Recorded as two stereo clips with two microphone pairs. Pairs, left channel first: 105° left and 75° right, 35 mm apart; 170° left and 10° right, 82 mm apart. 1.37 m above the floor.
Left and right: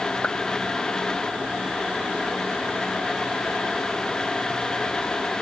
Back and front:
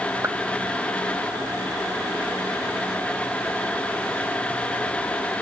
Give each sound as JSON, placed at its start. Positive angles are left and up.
{"t": 0.2, "sound": "a clap", "azimuth_deg": 50}